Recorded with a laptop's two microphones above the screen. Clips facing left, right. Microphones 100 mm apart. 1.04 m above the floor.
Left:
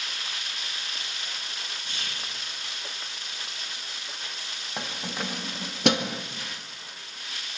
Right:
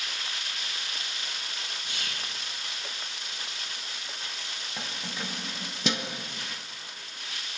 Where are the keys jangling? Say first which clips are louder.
Left 5 dB; 60° left (ahead or behind), 0.7 m.